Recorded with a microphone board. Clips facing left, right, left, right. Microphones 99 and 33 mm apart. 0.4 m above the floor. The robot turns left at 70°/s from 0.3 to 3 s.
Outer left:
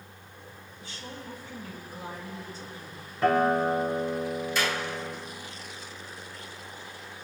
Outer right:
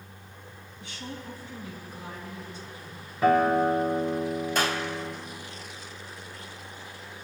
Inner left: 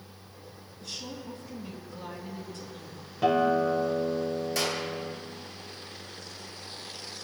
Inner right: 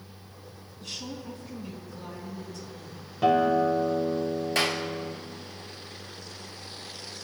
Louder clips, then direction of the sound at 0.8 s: Outer right 3 dB, inner right 2 dB; 95° right.